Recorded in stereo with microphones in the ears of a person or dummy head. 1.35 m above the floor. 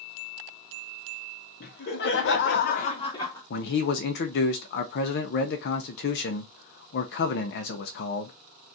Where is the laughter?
60° left (ahead or behind), 1.0 m; by 3.4 s 15° left (ahead or behind), 0.6 m.